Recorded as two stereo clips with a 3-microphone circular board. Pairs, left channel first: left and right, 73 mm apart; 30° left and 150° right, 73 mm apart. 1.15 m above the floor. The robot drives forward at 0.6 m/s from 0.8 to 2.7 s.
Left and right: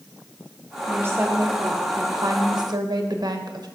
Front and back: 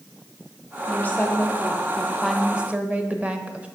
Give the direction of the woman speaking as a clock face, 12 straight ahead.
1 o'clock.